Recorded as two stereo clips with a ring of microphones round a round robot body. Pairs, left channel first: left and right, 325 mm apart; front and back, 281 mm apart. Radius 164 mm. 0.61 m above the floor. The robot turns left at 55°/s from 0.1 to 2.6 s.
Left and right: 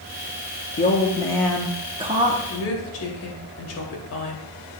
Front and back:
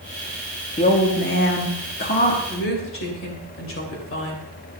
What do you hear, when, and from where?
0.8 s a woman speaking: 45° left, 1.2 m; by 2.4 s 45° right, 1.2 m
2.5 s a woman speaking: 50° left, 2.5 m; by 4.5 s 40° left, 2.5 m